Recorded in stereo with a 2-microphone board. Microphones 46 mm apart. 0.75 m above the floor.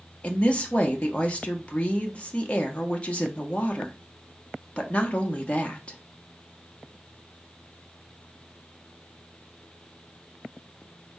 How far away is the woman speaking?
About 0.8 m.